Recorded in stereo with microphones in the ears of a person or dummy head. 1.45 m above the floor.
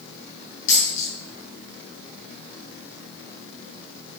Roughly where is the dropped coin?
Left.